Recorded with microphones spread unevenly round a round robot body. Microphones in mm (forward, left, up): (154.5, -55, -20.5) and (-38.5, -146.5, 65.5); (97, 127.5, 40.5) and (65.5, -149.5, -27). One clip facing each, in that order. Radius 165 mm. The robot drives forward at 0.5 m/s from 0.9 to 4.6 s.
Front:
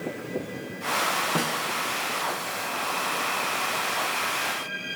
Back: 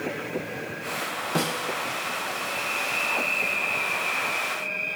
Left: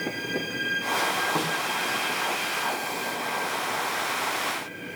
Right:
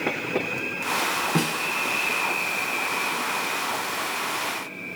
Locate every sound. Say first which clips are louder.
1.4 s a snare drum: back 3 dB, right 6 dB; 55° right, 1.7 m; by 1.7 s 60° right, 1.6 m